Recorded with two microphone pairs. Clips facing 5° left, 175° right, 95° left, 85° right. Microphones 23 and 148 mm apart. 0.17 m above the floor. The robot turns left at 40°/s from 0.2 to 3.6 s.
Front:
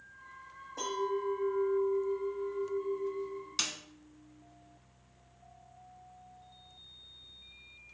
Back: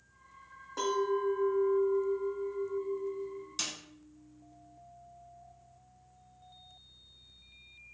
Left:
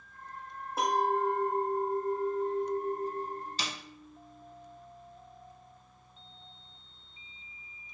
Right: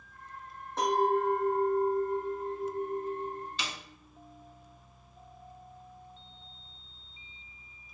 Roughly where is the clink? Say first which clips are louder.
Back 3 dB, right 2 dB; behind.